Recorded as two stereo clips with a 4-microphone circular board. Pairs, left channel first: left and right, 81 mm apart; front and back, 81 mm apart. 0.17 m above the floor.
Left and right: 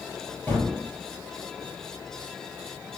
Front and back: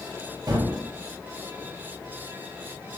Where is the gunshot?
155° left, 3.5 m.